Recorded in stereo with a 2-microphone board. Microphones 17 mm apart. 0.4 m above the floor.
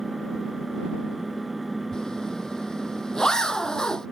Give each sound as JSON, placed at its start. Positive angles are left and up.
{"t": 0.0, "sound": "an engine running", "side_deg": -10}
{"t": 1.9, "sound": "a zipper", "side_deg": 40}